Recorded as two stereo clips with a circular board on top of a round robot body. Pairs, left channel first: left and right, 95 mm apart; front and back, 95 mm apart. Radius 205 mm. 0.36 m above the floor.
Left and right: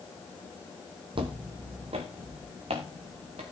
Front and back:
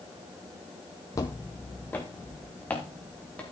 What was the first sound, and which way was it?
Footsteps, 55° right.